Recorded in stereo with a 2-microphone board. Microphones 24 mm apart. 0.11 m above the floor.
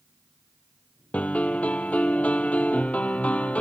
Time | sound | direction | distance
1.1 | a piano | 65° left (ahead or behind) | 0.8 m